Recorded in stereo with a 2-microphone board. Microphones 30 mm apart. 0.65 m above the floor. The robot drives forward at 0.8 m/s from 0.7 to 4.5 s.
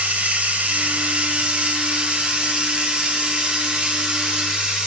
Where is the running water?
65° right (ahead or behind), 2.5 m; by 4.9 s 30° right (ahead or behind), 4.5 m.